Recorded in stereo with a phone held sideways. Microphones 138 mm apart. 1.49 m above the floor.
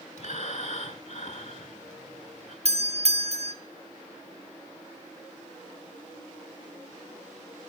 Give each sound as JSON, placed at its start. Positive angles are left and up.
{"t": 0.2, "sound": "breathing", "side_deg": 55, "distance_m": 2.5}
{"t": 2.6, "sound": "a doorbell", "side_deg": -50, "distance_m": 1.3}